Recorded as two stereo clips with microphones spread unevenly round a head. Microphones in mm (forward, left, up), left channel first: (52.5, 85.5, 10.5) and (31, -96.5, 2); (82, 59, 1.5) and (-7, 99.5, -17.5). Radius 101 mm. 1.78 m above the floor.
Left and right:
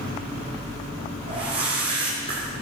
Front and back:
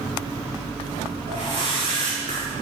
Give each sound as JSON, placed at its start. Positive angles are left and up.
{"t": 1.3, "sound": "a whoosh", "azimuth_deg": -160, "distance_m": 4.5}